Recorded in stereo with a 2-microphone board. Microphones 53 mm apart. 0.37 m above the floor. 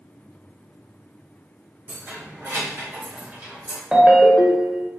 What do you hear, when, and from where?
1.9 s keys jangling: 60° right (ahead or behind), 1.7 m; by 3.8 s 15° right (ahead or behind), 1.0 m
3.9 s a ringtone: 15° right (ahead or behind), 0.6 m